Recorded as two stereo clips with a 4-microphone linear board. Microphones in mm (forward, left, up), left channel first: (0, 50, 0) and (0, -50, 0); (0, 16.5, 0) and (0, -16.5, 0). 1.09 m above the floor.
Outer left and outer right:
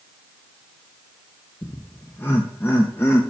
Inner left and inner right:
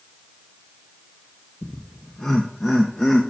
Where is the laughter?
20° left (ahead or behind), 0.5 m.